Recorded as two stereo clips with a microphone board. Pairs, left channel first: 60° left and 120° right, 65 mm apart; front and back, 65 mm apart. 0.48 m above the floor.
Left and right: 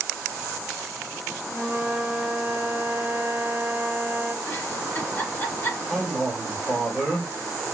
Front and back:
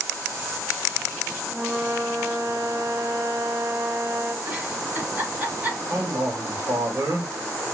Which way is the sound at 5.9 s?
145° left.